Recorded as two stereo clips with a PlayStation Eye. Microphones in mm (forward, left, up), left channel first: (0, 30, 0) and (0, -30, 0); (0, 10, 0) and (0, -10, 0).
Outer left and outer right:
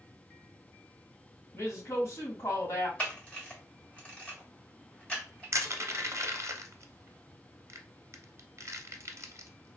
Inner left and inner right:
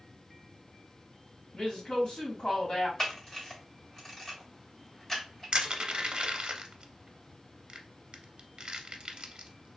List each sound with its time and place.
1.5 s a woman speaking: 45° left (ahead or behind), 2 m
3.0 s a camera shutter: 20° left (ahead or behind), 1.6 m
5.5 s crushing: 50° right (ahead or behind), 0.6 m